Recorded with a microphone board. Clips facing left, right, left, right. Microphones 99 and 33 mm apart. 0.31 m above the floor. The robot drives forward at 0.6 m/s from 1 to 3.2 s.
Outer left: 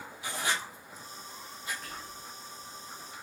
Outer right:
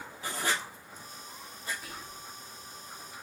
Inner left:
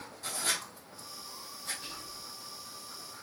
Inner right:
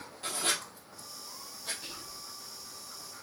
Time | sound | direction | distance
0.2 | writing | 45° right (ahead or behind) | 1.9 m
1.8 | whispering | 5° right (ahead or behind) | 1.7 m